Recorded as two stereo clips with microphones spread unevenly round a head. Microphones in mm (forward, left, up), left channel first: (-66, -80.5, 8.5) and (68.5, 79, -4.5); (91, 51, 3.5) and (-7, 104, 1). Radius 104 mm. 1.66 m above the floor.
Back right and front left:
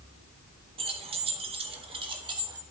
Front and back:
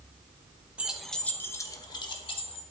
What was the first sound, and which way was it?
Keys jangling, 85° left.